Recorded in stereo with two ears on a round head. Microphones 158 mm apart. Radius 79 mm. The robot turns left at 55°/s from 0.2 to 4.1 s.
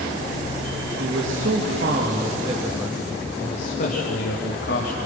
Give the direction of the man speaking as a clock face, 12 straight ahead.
2 o'clock.